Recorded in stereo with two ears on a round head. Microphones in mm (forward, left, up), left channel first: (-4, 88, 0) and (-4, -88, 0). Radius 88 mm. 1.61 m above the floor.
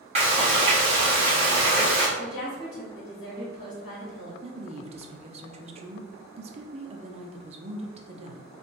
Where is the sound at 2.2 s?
50° left (ahead or behind), 1.8 m.